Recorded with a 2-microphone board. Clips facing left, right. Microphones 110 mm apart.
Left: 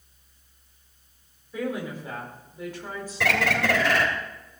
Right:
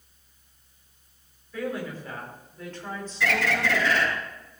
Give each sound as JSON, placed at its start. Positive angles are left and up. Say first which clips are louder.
{"t": 1.5, "sound": "a woman speaking", "louder": "left 1 dB", "side_deg": 20, "distance_m": 4.5}
{"t": 3.2, "sound": "a bird", "louder": "left 1 dB", "side_deg": 75, "distance_m": 2.5}